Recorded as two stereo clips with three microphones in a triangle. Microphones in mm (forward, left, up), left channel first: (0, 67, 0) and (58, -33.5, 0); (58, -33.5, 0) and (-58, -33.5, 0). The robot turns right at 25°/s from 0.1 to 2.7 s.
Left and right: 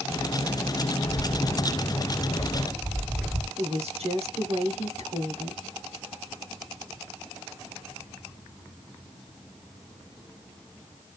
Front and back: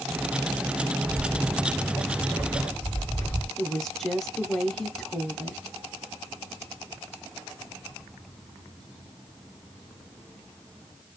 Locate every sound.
1.1 s footsteps: 80° left, 2.0 m; by 3.5 s 15° left, 1.6 m
3.6 s a woman speaking: 85° right, 0.9 m